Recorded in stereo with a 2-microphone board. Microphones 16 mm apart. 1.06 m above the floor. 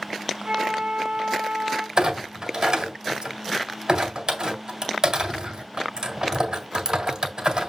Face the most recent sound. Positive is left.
turn(degrees=-40)  # may be behind; listen again after turning